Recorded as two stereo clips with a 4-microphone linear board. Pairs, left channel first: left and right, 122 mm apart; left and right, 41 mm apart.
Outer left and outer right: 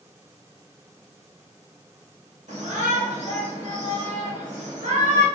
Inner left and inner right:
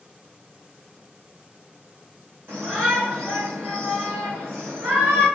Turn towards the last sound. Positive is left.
turn(degrees=-75)  # may be behind; listen again after turning